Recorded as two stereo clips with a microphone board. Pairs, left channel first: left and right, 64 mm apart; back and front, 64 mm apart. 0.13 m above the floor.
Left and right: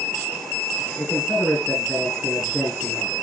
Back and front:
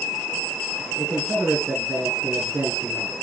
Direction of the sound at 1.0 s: 15° left.